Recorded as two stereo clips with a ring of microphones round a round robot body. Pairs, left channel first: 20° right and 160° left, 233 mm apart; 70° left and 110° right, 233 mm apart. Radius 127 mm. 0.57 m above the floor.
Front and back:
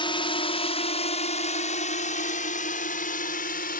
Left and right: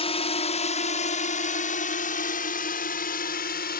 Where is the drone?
25° left.